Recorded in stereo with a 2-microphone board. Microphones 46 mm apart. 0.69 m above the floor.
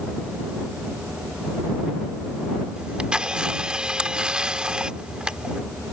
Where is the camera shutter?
20° right (ahead or behind).